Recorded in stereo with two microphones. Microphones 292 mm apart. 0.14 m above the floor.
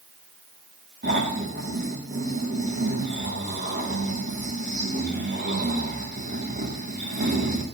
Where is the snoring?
35° right (ahead or behind), 5 m.